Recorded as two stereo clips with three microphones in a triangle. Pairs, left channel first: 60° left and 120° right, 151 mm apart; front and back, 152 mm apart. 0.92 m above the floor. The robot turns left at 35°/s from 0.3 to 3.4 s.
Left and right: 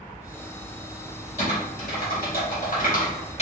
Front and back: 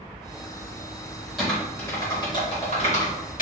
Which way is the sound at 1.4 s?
90° left.